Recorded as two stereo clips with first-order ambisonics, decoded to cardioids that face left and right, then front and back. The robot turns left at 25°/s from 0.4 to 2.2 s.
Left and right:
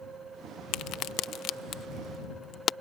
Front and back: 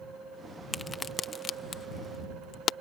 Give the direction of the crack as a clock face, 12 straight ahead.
9 o'clock.